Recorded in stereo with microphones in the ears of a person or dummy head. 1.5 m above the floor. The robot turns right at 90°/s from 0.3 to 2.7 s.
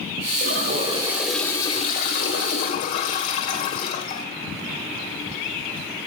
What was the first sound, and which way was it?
A toilet flushing, 80° right.